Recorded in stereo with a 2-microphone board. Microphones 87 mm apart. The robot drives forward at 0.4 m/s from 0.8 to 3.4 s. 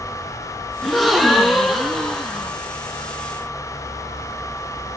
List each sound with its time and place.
0.8 s a gasp: centre (ahead or behind), 1.6 m